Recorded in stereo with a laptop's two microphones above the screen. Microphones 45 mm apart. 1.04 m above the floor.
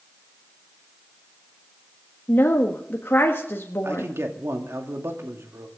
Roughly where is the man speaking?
Right.